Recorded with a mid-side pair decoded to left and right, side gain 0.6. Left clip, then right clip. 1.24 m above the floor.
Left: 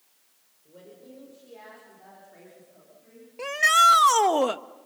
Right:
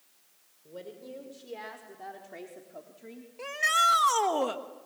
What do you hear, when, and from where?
0.7 s a woman speaking: 35° right, 5.5 m; by 3.3 s 75° right, 3.5 m
3.4 s a shout: 35° left, 1.4 m